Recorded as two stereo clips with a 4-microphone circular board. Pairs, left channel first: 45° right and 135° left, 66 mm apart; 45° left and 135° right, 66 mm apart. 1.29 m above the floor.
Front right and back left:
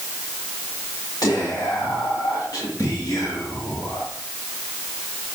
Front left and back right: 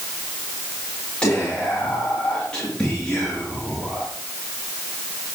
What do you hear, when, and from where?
1.2 s whispering: 30° right, 3 m